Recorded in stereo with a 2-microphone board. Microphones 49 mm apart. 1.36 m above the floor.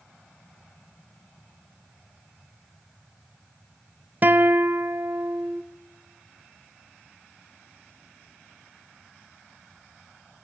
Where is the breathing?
No breathing in this recording.